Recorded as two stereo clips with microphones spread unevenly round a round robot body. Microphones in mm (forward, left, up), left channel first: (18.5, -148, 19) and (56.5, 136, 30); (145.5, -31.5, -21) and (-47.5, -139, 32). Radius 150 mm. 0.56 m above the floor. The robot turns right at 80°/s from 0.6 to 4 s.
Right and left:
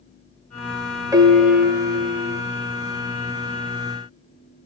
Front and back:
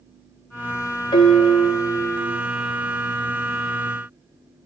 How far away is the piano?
About 0.8 m.